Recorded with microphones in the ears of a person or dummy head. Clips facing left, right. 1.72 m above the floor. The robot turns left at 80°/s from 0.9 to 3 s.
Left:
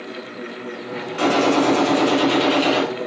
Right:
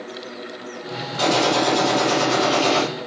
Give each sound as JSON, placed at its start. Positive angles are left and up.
{"t": 1.2, "sound": "a gunshot", "azimuth_deg": 140, "distance_m": 7.0}